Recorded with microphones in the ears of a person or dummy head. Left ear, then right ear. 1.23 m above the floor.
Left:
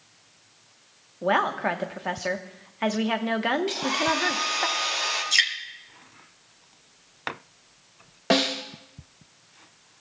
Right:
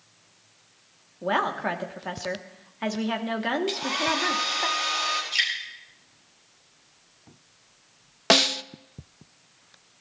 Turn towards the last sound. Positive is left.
turn(degrees=-45)  # may be behind; listen again after turning